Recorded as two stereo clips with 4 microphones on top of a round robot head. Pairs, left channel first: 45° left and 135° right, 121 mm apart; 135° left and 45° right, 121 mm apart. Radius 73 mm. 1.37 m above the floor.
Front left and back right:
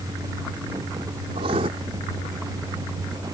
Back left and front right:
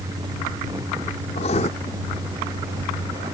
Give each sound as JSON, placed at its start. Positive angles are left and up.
{"t": 1.4, "sound": "writing", "azimuth_deg": 175}